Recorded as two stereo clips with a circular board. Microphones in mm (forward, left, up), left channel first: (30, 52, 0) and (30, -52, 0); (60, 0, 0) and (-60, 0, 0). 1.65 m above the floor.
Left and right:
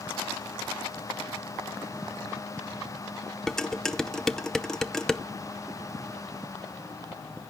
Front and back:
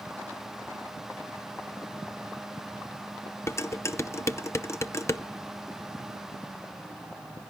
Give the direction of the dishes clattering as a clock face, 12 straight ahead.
12 o'clock.